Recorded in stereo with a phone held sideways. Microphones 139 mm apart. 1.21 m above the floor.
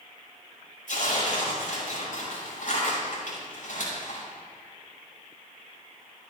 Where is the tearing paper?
70° left (ahead or behind), 6 m.